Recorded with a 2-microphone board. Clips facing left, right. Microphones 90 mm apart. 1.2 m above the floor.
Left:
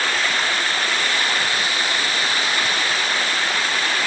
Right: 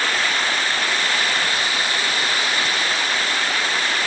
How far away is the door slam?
I don't hear a door slam.